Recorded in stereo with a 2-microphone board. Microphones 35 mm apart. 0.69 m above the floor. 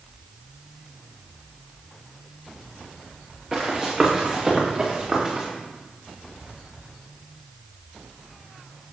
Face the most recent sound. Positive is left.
turn(degrees=-10)  # may be behind; listen again after turning